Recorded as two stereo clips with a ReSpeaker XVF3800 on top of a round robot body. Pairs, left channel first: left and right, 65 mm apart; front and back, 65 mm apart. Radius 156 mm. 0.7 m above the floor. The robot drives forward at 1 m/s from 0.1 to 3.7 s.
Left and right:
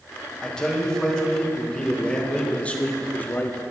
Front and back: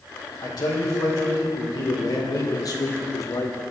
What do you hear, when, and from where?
0.4 s a man speaking: 10° left, 4.5 m; by 3.6 s 35° left, 1.4 m